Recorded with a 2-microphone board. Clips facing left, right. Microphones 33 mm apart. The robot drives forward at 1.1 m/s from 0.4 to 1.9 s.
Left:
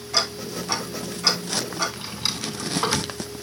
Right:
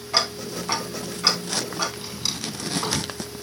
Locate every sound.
0.1 s ticking: 40° right (ahead or behind), 2.5 m; by 1.9 s 25° right (ahead or behind), 4 m
2.0 s a drawer: 20° left (ahead or behind), 3 m